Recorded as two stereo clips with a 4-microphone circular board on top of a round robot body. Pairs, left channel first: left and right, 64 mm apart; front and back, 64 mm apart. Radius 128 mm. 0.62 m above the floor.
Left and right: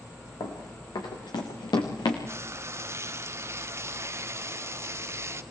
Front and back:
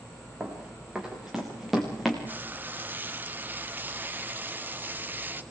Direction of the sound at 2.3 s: 125° right.